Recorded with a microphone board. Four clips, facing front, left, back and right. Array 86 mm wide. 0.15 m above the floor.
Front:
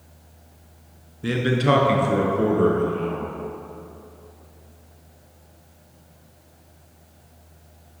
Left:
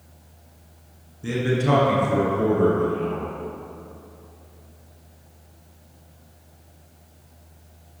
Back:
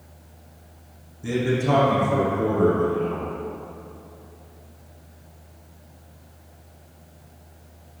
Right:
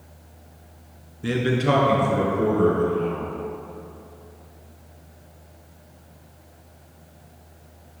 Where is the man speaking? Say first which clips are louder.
Right 1 dB, front 2 dB; 40° right, 1.3 m; by 3.3 s 10° left, 3.5 m.